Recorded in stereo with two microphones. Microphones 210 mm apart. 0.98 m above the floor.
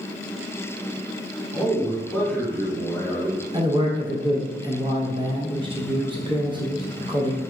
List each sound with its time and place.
1.5 s a man speaking: 10° left (ahead or behind), 1.8 m
3.5 s a man speaking: 25° right (ahead or behind), 0.8 m